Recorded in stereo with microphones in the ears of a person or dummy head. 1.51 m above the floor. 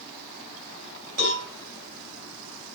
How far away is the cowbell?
About 5.5 m.